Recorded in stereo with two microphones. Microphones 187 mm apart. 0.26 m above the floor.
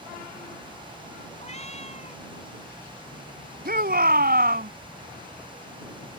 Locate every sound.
1.4 s a cat meowing: 35° left (ahead or behind)
3.6 s a shout: 55° right (ahead or behind)